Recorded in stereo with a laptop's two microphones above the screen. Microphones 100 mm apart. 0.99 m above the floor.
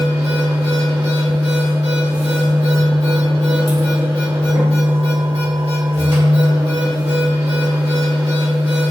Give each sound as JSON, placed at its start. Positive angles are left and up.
{"t": 0.0, "sound": "a machine running", "side_deg": -80, "distance_m": 1.6}